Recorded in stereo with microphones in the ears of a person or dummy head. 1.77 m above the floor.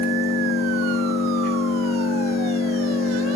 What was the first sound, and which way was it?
An engine running, 60° left (ahead or behind).